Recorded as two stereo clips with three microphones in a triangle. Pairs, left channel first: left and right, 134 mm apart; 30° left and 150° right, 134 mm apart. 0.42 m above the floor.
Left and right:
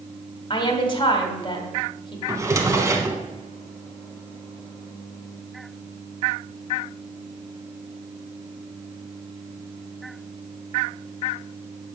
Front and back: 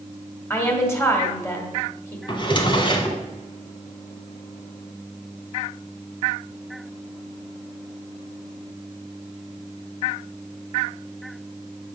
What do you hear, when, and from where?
0.5 s a woman speaking: 85° left, 1.6 m
2.3 s a drawer: 25° right, 1.1 m